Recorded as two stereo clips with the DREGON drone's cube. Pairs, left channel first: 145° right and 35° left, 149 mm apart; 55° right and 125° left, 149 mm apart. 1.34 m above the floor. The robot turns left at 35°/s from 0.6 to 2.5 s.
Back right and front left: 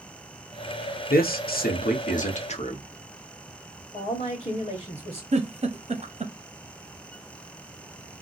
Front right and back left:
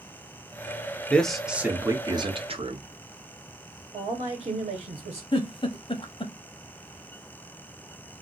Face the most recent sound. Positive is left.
turn(degrees=-5)